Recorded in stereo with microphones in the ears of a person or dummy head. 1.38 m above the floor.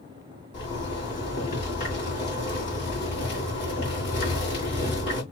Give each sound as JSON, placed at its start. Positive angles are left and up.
{"t": 0.5, "sound": "a zipper", "side_deg": 40, "distance_m": 1.9}